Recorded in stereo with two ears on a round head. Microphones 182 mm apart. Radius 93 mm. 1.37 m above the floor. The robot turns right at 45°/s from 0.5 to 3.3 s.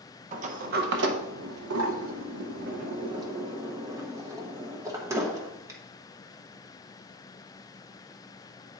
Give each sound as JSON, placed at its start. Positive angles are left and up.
{"t": 0.3, "sound": "a sliding door", "side_deg": -40, "distance_m": 0.8}